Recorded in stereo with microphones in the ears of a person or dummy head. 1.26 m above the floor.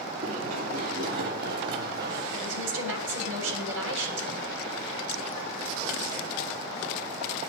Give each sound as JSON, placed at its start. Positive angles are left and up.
{"t": 0.2, "sound": "running footsteps", "side_deg": -50, "distance_m": 5.5}
{"t": 2.3, "sound": "a woman speaking", "side_deg": -75, "distance_m": 6.5}